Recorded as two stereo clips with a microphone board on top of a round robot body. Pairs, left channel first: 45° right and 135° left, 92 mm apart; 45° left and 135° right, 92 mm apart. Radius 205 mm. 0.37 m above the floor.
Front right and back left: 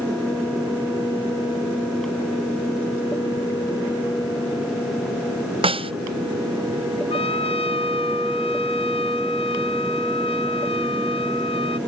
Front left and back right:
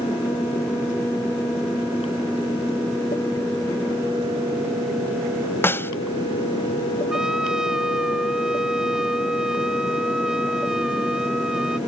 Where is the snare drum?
115° left.